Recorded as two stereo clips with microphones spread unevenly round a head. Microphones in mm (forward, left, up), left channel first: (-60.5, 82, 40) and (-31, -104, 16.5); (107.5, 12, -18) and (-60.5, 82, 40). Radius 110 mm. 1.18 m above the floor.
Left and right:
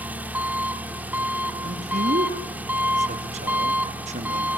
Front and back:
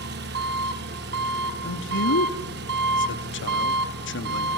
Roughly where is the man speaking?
Ahead right.